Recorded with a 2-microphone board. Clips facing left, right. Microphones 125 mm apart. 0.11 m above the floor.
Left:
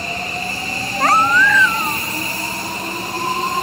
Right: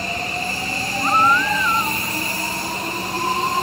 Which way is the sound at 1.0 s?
80° left.